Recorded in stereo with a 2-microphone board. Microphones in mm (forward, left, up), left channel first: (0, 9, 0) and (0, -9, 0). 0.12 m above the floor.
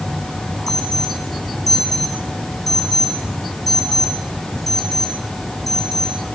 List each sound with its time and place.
0.7 s an alarm: 10° left (ahead or behind), 7 m